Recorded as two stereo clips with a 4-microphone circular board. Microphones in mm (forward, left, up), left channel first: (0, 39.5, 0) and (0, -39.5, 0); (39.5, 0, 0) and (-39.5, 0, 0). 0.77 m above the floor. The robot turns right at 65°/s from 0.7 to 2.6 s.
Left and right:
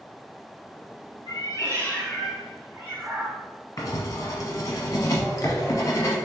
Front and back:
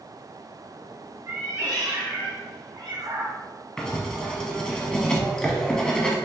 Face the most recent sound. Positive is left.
turn(degrees=75)